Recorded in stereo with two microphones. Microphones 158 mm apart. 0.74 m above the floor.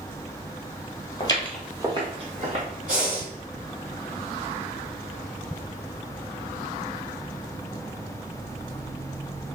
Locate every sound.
1.2 s footsteps: 35° left (ahead or behind), 0.9 m; by 2.6 s 50° right (ahead or behind), 1.9 m
2.9 s breathing: 55° right (ahead or behind), 1.8 m